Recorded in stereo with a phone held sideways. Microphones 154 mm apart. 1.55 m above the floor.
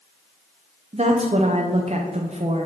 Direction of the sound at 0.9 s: 45° right (ahead or behind).